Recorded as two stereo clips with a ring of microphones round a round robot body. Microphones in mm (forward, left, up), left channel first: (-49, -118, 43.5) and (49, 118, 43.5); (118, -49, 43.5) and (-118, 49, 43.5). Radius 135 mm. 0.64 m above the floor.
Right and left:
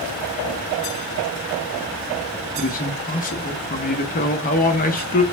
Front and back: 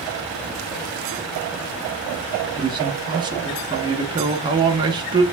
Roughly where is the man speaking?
Behind right.